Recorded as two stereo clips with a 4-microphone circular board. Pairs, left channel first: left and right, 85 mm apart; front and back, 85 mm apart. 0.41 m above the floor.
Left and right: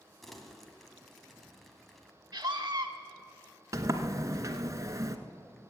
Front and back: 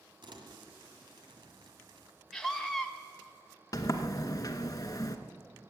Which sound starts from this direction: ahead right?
A sliding door, at 3.7 s.